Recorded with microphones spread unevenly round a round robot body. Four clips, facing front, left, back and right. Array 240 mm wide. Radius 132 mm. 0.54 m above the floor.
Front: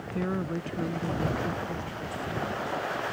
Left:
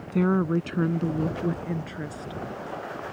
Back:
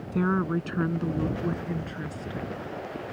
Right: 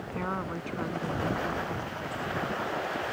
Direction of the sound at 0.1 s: 115° left.